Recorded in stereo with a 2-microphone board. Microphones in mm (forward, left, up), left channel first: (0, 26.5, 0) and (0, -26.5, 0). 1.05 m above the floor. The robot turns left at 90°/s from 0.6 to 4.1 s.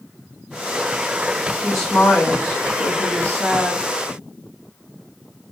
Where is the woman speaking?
170° right, 1.5 m; by 3.8 s 10° right, 1.5 m.